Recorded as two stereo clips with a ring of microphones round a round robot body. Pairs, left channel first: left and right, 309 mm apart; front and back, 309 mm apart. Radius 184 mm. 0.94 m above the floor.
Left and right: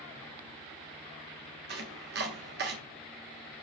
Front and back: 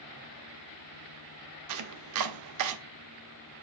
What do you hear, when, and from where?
1.7 s chopping: 150° right, 0.7 m